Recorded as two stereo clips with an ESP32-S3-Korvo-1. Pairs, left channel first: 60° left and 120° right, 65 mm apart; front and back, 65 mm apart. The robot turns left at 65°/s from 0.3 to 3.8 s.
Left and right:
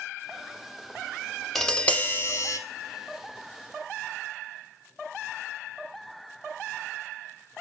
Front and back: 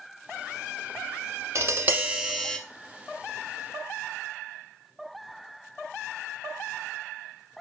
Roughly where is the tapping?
Behind left.